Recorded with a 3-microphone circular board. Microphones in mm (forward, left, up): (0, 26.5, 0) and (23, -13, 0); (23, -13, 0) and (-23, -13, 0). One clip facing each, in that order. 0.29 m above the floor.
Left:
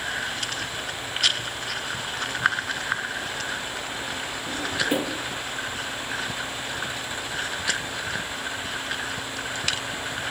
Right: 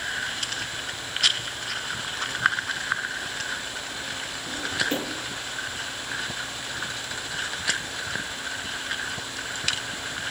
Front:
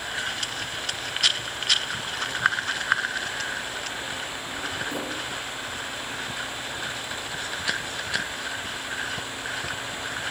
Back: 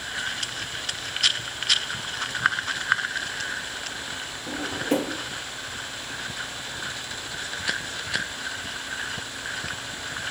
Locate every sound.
4.5 s a drawer: 165° right, 3.5 m